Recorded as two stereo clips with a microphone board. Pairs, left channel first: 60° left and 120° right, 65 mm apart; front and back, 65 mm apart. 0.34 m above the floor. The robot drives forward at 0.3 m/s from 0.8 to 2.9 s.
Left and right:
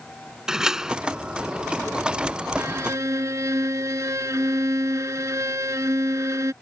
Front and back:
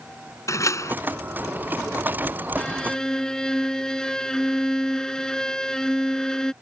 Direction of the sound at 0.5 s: 40° right.